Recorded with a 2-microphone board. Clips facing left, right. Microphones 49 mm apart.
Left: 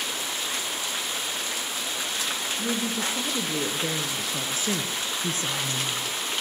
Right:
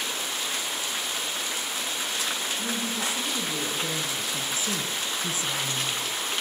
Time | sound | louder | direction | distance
2.6 | a woman speaking | left 2 dB | 35° left (ahead or behind) | 5.5 m